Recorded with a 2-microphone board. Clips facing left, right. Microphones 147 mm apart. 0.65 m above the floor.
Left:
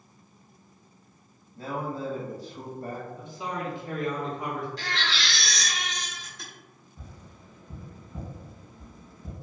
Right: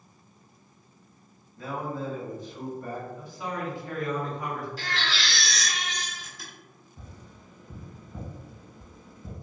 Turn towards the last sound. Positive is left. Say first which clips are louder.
# even
turn(degrees=-15)  # may be behind; listen again after turning